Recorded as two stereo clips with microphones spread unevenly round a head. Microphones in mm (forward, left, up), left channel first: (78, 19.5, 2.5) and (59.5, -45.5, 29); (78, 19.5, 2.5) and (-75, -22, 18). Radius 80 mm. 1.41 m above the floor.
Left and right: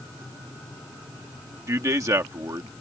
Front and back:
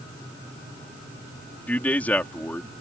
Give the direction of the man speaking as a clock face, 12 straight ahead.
2 o'clock.